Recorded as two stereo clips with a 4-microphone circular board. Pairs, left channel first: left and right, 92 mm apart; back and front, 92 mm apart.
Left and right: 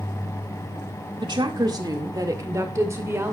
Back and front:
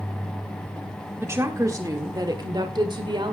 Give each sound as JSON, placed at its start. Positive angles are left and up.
{"t": 1.2, "sound": "a woman speaking", "azimuth_deg": -65, "distance_m": 1.8}